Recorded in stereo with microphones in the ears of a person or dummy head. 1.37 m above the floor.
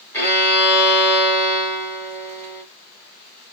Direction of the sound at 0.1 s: 20° left (ahead or behind).